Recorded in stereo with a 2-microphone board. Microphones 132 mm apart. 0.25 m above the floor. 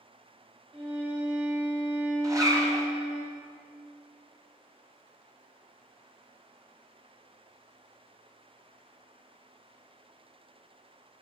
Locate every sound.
0.7 s a violin: 45° right (ahead or behind), 3 m
2.2 s a zipper: 25° right (ahead or behind), 1.5 m